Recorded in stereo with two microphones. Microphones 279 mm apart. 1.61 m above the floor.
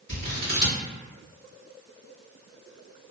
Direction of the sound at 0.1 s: 55° left (ahead or behind).